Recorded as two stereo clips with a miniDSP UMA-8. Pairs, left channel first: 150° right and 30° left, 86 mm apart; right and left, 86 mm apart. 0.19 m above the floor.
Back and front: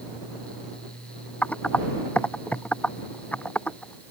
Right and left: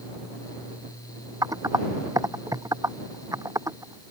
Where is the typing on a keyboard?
135° left.